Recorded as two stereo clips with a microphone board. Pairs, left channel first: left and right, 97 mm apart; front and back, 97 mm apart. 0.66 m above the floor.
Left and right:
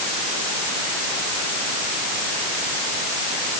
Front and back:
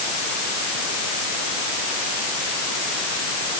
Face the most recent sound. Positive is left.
No sound to turn to.